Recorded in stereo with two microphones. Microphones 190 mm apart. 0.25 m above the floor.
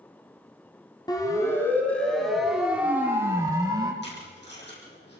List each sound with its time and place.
1.1 s a siren: 20° left (ahead or behind), 2.5 m; by 3.9 s 20° right (ahead or behind), 3.5 m
4.0 s tape being pulled: 65° left (ahead or behind), 7.5 m